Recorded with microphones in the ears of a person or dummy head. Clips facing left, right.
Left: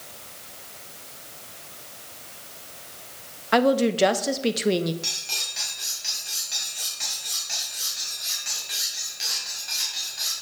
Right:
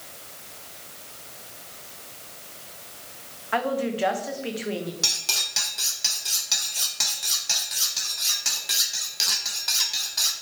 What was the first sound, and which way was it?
A woman speaking, 45° left (ahead or behind).